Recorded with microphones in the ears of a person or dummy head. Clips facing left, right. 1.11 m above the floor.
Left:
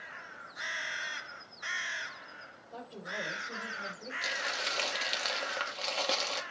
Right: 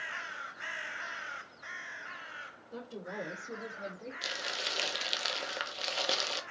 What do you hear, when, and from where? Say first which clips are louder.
2.7 s a woman speaking: right 2 dB; 60° right (ahead or behind), 3.5 m; by 4.1 s 75° right (ahead or behind), 3.5 m
4.2 s crumpling: left 5 dB; 5° right (ahead or behind), 1.0 m